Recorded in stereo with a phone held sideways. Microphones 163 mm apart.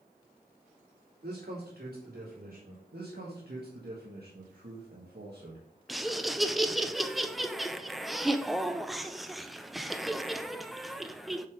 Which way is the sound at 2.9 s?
85° right.